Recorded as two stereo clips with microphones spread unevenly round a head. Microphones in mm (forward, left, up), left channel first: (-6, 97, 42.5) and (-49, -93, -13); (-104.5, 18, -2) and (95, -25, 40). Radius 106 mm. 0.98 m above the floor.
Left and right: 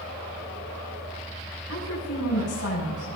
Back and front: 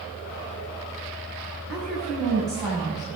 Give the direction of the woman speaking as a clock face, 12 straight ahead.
9 o'clock.